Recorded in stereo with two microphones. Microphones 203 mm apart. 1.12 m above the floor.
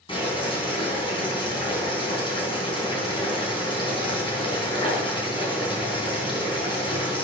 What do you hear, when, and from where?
0.1 s boiling: 25° left (ahead or behind), 4.5 m